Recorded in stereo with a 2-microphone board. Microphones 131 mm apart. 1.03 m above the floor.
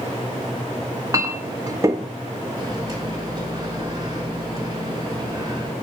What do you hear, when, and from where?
0.8 s a clink: 25° right (ahead or behind), 1.0 m
2.6 s a microwave: 30° right (ahead or behind), 3 m